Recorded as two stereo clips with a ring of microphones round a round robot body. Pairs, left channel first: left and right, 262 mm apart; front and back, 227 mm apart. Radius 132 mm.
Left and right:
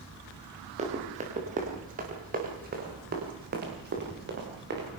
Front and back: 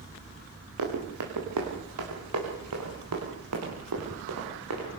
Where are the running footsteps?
155° right, 5.5 m; by 4.9 s 140° right, 8 m.